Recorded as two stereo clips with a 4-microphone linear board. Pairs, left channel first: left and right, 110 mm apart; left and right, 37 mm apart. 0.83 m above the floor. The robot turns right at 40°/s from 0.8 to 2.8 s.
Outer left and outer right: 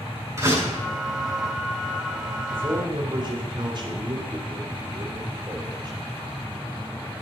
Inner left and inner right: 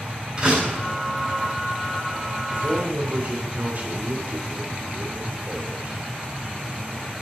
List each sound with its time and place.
0.4 s a door slam: 25° right (ahead or behind), 7.5 m
2.5 s a man speaking: 55° right (ahead or behind), 3 m; by 6.0 s 45° right (ahead or behind), 3 m